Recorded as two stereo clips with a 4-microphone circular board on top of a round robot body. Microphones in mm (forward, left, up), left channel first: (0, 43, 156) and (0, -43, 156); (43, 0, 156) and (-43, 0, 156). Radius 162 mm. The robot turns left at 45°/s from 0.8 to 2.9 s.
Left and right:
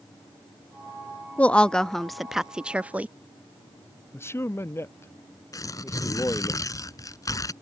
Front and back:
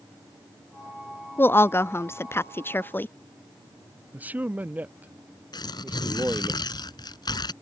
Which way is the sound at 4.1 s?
125° left.